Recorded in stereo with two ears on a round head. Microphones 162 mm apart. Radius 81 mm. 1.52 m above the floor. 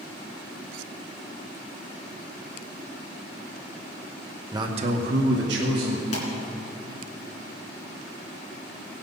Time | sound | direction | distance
4.5 | a man speaking | 20° right (ahead or behind) | 1.1 m
6.1 | a pop | 40° left (ahead or behind) | 3 m